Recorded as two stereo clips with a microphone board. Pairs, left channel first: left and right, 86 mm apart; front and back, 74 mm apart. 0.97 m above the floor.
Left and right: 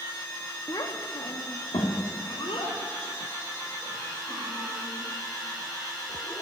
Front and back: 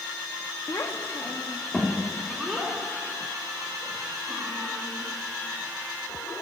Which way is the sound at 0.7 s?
45° left.